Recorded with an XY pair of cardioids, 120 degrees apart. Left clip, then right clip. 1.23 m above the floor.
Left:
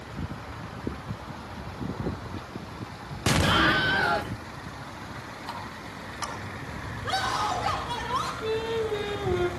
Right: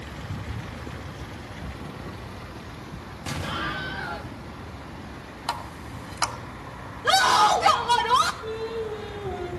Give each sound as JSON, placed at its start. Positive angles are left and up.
{"t": 3.3, "sound": "an explosion", "azimuth_deg": 55, "distance_m": 0.5}
{"t": 5.5, "sound": "a running tap", "azimuth_deg": -65, "distance_m": 2.0}
{"t": 7.0, "sound": "a scream", "azimuth_deg": -70, "distance_m": 1.3}
{"t": 8.4, "sound": "singing", "azimuth_deg": 70, "distance_m": 1.6}